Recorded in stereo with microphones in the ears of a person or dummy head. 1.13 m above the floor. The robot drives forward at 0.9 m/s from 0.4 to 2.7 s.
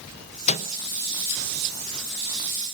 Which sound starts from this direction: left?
A microwave, at 0.5 s.